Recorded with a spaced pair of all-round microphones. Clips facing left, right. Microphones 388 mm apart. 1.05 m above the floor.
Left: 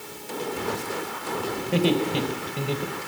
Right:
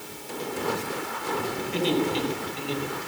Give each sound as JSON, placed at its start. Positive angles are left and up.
{"t": 1.6, "sound": "laughter", "side_deg": 75, "distance_m": 4.0}